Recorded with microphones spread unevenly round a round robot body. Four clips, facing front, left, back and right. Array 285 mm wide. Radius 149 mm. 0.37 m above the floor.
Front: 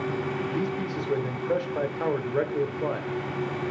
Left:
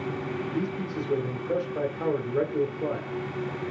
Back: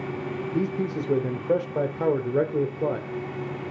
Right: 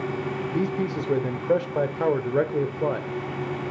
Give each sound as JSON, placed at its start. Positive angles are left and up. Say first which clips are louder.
{"t": 0.5, "sound": "a man speaking", "louder": "right 7 dB, back 2 dB", "azimuth_deg": -130, "distance_m": 1.2}